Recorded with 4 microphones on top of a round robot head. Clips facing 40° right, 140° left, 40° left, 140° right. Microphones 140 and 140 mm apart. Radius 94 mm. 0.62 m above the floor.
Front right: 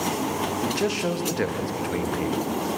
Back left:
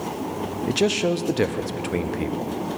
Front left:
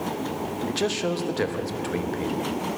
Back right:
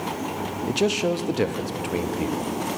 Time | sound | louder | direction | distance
0.7 | a man speaking | back left 7 dB, back right 4 dB | 165° left | 0.6 m